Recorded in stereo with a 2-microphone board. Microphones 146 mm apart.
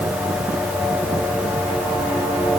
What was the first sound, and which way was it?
Only background noise.